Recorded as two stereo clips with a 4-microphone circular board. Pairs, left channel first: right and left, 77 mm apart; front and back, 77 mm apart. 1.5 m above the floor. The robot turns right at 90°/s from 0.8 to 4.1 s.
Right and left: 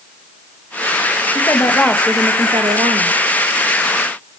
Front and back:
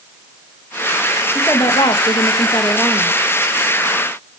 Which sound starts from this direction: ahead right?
A woman speaking, at 1.4 s.